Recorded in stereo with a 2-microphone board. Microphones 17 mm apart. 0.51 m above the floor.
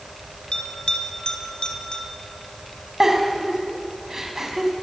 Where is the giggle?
20° right (ahead or behind), 3 m.